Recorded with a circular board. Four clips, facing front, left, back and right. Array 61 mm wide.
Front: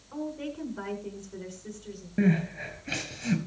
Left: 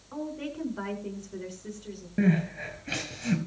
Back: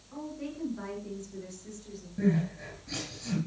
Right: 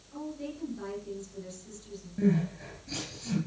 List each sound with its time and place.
0.1 s a woman speaking: 65° left, 6.5 m
2.2 s crying: 45° left, 4 m